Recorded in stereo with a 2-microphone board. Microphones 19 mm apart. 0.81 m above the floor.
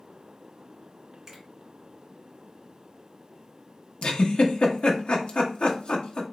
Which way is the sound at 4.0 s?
70° left (ahead or behind).